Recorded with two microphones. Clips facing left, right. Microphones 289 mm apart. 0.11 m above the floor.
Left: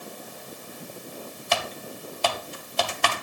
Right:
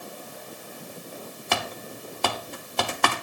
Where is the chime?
No chime in this recording.